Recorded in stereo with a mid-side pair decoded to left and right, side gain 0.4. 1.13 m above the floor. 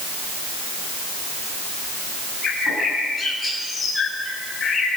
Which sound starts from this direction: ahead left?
A bird, at 2.4 s.